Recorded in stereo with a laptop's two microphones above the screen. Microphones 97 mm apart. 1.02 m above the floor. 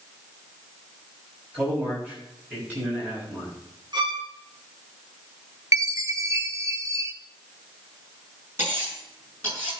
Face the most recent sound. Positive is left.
turn(degrees=-25)  # may be behind; listen again after turning